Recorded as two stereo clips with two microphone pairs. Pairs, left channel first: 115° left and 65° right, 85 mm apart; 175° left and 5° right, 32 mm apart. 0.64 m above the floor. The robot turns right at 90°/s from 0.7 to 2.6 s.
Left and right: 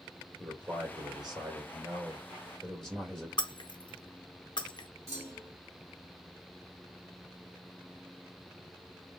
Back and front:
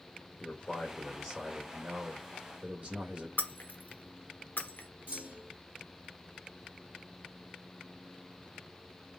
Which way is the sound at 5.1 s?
15° right.